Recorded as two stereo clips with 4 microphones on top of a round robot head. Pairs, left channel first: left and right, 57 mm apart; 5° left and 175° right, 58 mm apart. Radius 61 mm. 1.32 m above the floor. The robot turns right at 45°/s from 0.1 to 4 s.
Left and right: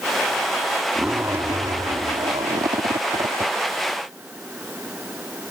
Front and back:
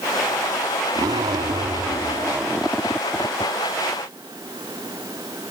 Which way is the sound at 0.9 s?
170° right.